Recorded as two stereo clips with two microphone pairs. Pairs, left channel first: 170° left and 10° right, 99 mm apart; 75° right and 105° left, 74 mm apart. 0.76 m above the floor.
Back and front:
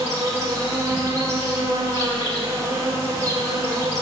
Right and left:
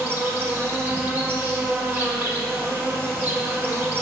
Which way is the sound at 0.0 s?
45° left.